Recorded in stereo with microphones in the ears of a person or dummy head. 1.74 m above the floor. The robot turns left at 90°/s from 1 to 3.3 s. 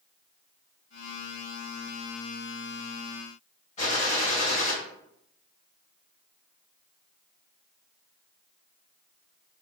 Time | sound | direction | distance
3.8 | a gunshot | 35° left (ahead or behind) | 0.7 m